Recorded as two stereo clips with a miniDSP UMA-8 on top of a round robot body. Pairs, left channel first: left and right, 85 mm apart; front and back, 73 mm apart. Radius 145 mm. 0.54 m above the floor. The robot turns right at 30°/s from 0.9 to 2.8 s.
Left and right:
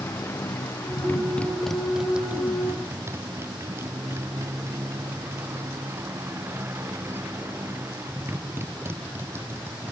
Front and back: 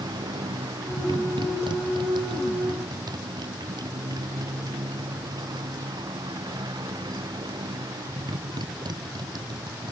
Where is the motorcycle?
155° left; by 9.9 s 155° right.